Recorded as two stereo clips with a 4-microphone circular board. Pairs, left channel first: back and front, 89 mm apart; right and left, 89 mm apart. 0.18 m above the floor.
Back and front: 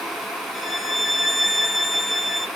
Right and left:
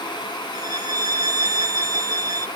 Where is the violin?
90° left, 0.6 m.